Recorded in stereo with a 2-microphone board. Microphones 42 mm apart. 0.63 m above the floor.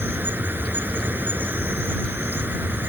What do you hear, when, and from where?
0.0 s an insect: 50° right (ahead or behind)